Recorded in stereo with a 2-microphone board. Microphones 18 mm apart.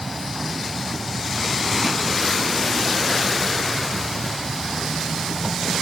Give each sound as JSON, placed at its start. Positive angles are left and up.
{"t": 0.0, "sound": "an insect", "side_deg": 0}